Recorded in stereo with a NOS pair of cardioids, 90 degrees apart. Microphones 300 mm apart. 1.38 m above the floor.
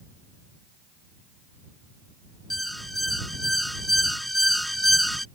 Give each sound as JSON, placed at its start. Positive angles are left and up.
{"t": 2.5, "sound": "an alarm", "azimuth_deg": 0}